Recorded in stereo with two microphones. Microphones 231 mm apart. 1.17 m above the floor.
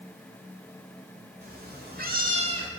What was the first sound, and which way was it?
A cat meowing, 40° right (ahead or behind).